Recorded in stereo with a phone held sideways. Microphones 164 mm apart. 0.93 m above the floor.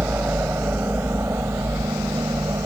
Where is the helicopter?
10° right (ahead or behind); by 2.7 s 20° right (ahead or behind).